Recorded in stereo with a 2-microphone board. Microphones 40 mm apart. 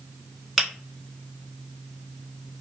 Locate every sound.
0.6 s a finger snap: 5° right (ahead or behind), 1.0 m